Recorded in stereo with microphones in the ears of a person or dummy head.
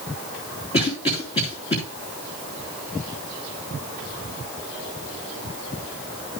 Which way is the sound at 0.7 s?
30° left (ahead or behind).